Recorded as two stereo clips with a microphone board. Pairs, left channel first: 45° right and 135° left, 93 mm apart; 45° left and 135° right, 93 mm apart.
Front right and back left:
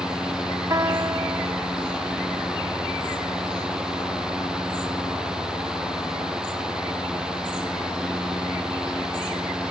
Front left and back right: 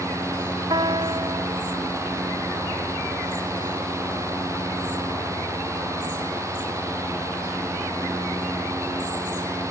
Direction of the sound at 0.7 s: 170° right.